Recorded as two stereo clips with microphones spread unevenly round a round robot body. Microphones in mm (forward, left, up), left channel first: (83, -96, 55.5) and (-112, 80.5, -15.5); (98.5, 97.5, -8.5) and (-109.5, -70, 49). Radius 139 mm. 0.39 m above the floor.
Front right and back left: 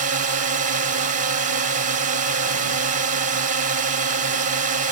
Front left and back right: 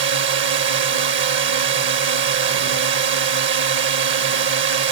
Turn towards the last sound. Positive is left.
turn(degrees=170)